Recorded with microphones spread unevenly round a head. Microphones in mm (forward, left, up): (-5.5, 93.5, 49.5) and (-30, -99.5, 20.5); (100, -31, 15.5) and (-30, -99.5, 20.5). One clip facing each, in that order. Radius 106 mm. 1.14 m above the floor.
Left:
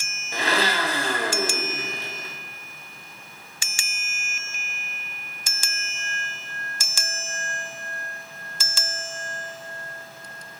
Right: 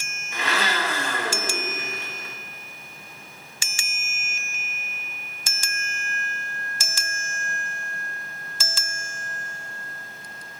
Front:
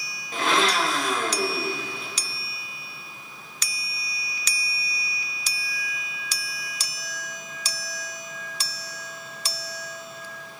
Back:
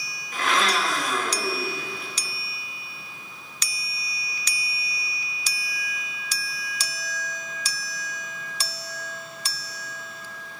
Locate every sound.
0.3 s a blender: 45° left, 0.6 m